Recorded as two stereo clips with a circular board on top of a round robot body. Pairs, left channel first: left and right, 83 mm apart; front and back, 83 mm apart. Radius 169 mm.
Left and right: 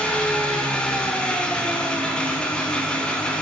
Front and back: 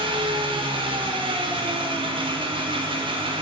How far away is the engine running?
About 0.7 m.